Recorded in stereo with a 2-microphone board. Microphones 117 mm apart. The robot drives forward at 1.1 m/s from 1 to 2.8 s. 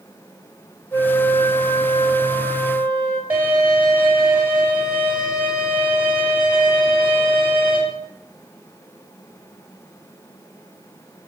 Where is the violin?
15° right (ahead or behind), 9 m.